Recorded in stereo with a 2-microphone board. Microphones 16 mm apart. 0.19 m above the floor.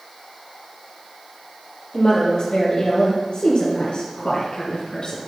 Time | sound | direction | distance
1.9 | a woman speaking | 50° left (ahead or behind) | 4 m